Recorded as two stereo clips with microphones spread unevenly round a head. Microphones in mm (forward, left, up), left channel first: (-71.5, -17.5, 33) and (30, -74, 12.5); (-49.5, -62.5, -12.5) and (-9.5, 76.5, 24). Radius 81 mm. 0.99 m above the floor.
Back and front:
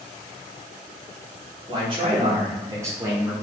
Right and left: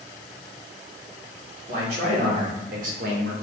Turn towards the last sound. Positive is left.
turn(degrees=40)